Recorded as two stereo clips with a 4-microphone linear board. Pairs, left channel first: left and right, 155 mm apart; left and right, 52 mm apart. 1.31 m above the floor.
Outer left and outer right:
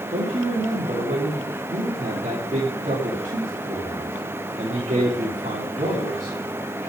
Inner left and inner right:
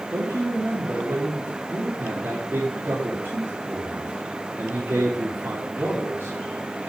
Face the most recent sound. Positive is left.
turn(degrees=-50)  # may be behind; listen again after turning